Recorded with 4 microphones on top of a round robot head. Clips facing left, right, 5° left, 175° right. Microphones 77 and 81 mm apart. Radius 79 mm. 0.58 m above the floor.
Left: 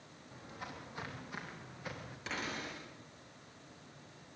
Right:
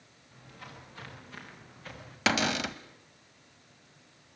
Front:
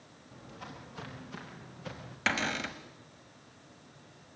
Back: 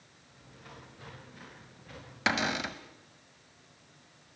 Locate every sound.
0.3 s footsteps: 20° left, 8.5 m; by 2.2 s 15° left, 8 m
2.3 s a cupboard door: 95° right, 1.3 m